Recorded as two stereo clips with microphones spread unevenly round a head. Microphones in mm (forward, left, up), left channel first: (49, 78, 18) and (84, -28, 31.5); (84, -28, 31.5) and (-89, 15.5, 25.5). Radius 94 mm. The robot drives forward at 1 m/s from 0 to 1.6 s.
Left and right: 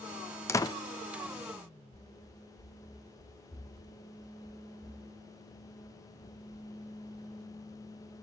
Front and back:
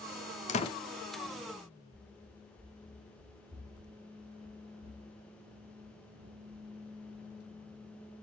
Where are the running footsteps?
85° left, 2.5 m; by 8.2 s 170° left, 3 m.